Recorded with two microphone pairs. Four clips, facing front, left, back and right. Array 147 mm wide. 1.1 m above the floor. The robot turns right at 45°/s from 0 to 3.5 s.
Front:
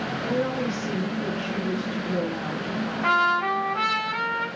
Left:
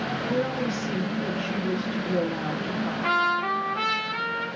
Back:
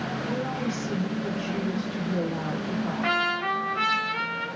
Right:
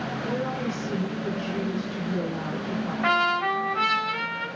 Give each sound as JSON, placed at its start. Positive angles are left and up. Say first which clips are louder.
{"t": 0.2, "sound": "a woman speaking", "louder": "left 2 dB, front 5 dB", "azimuth_deg": -15, "distance_m": 1.3}
{"t": 3.0, "sound": "a trumpet", "louder": "right 1 dB, front 7 dB", "azimuth_deg": -60, "distance_m": 1.4}